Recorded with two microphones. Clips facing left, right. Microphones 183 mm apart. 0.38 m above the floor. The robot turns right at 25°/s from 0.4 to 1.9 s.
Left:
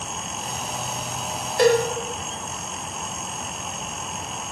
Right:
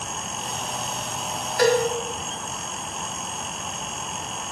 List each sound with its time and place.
1.6 s a cowbell: 25° left (ahead or behind), 0.6 m; by 1.8 s 20° left (ahead or behind), 0.6 m